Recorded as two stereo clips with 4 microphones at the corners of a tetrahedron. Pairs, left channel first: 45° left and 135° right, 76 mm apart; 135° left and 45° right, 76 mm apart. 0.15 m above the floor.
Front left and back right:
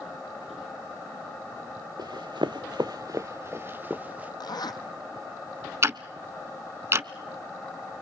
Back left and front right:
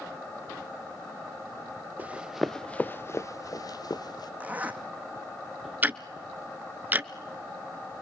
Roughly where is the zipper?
Ahead left.